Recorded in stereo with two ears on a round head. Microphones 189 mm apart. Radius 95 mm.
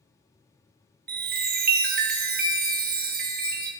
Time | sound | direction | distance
1.1 | a chime | 45° right (ahead or behind) | 1.0 m